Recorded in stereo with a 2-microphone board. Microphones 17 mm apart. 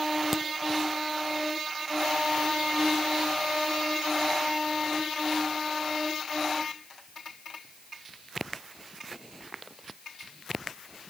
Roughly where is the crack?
Centre.